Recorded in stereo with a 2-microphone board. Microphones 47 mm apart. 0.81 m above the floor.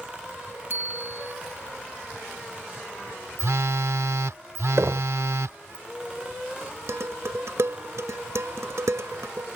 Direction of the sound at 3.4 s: 65° right (ahead or behind).